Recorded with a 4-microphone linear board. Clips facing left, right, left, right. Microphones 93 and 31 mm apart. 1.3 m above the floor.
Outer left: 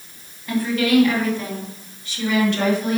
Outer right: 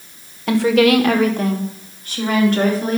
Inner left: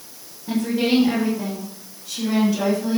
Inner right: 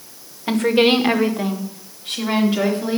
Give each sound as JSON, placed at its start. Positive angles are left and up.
{"t": 0.5, "sound": "a woman speaking", "side_deg": -75, "distance_m": 1.5}